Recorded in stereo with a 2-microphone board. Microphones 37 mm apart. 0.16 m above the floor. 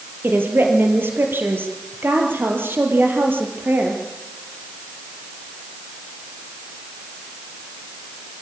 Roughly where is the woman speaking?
Right.